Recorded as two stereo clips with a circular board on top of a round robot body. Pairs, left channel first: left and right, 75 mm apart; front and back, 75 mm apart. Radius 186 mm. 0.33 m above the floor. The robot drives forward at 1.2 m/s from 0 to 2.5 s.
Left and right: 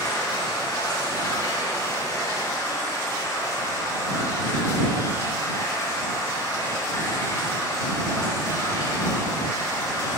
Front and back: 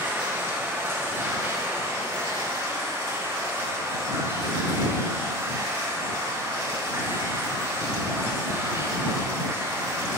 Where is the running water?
115° left, 7 m; by 10.2 s 135° left, 8.5 m.